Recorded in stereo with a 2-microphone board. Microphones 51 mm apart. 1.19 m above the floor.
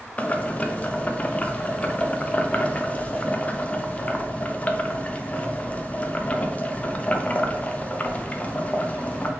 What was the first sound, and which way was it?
Boiling, 30° left (ahead or behind).